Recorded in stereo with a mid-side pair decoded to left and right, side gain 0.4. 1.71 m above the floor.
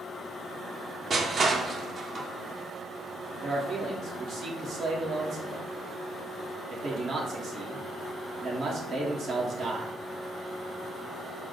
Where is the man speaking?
65° right, 1.2 m.